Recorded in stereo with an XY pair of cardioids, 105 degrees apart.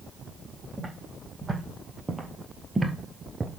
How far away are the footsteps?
About 4 m.